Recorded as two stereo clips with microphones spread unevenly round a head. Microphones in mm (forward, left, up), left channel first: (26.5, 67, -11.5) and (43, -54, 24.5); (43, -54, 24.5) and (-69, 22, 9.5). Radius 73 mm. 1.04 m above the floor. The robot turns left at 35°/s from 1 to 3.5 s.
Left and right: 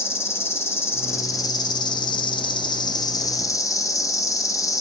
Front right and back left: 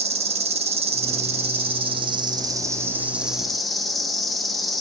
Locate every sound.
0.0 s an insect: 150° left, 1.2 m; by 4.8 s 60° left, 1.2 m